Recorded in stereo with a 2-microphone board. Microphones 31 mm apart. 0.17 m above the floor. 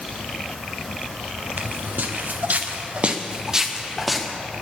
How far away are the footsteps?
About 3 m.